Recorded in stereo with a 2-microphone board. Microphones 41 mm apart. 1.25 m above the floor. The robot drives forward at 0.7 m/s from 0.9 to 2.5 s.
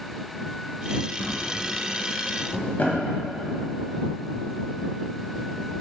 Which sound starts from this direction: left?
A drawer, at 1.2 s.